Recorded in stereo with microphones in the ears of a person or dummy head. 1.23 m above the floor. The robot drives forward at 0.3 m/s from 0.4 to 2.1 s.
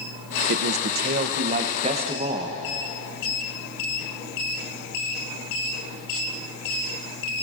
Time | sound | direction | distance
0.5 | a man speaking | 65° right (ahead or behind) | 0.5 m